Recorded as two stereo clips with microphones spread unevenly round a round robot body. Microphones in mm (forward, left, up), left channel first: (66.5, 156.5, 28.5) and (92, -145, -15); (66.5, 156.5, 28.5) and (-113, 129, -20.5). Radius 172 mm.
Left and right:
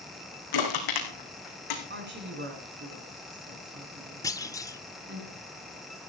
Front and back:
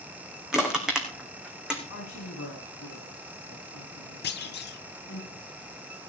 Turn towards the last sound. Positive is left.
turn(degrees=10)